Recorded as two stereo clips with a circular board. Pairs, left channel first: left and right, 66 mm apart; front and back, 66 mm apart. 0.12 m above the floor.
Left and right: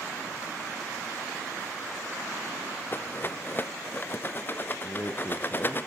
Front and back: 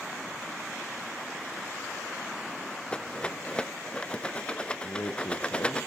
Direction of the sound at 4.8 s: 35° left.